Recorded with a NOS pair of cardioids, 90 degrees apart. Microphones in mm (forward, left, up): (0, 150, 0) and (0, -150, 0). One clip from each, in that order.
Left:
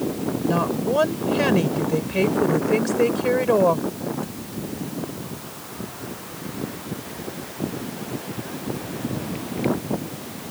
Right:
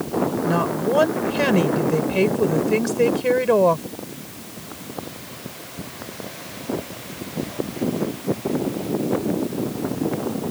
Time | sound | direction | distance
0.5 | a woman speaking | 15° right | ?